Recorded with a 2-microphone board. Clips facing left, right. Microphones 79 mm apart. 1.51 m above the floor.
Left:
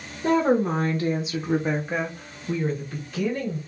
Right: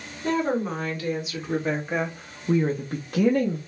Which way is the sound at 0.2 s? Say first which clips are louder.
Left 4 dB; 45° left (ahead or behind).